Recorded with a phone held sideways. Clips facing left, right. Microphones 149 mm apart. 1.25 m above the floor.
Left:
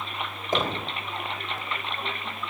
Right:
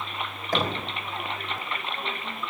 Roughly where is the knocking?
Left.